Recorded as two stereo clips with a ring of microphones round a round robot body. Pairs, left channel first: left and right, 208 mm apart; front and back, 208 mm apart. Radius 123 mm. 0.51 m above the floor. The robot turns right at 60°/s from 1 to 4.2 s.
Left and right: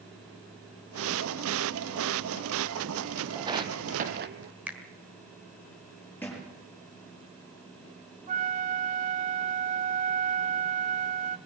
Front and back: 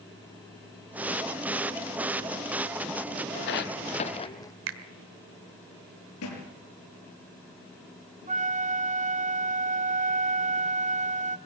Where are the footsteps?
25° right, 0.9 m; by 4.5 s 75° right, 1.0 m.